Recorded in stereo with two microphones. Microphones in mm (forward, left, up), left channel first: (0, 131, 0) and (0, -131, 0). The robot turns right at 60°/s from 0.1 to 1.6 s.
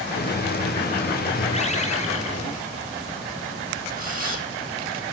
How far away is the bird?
About 2.5 m.